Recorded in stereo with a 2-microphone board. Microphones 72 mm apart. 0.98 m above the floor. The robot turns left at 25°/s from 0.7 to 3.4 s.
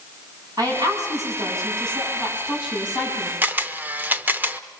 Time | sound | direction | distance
0.6 | a woman speaking | 115° right | 8.5 m
3.4 | a camera shutter | 25° right (ahead or behind) | 1.0 m